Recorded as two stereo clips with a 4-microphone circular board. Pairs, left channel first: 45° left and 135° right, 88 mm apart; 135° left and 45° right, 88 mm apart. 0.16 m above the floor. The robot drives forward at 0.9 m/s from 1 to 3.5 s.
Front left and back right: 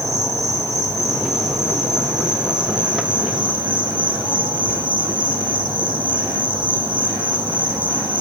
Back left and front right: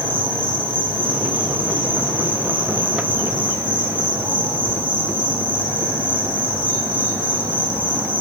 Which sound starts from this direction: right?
An insect, at 0.0 s.